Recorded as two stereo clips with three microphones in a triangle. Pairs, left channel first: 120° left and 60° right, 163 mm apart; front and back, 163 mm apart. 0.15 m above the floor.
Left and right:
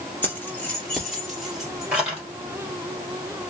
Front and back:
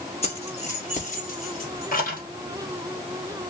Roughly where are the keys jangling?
Ahead left.